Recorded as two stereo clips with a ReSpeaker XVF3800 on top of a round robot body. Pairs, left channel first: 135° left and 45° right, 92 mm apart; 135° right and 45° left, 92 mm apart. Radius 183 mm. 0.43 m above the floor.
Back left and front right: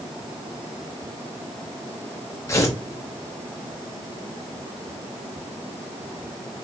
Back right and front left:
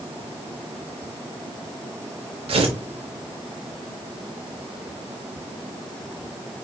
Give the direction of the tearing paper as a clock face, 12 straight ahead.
10 o'clock.